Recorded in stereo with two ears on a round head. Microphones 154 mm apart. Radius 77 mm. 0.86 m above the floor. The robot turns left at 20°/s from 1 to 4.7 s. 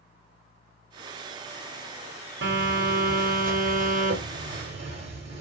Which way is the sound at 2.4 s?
95° right.